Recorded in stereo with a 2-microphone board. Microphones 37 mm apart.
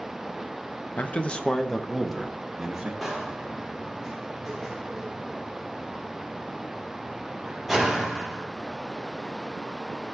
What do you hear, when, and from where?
1.0 s a man speaking: 45° left (ahead or behind), 0.6 m; by 2.9 s 10° right (ahead or behind), 1.4 m
3.0 s a door slam: centre (ahead or behind), 1.9 m